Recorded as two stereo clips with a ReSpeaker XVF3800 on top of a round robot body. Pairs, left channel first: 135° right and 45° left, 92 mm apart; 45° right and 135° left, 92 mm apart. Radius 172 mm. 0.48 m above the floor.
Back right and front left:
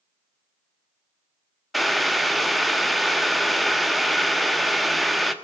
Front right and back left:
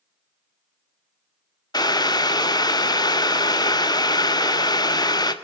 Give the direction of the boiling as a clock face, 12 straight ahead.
1 o'clock.